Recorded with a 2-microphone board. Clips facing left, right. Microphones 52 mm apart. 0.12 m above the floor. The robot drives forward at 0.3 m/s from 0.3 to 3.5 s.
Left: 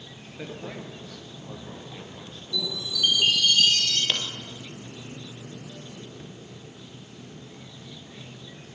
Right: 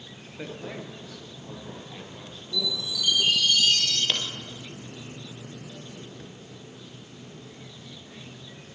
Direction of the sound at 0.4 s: 5° right (ahead or behind).